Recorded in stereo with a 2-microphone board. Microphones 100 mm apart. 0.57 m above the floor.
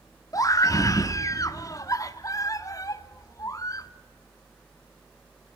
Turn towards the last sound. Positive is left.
turn(degrees=35)  # may be behind; listen again after turning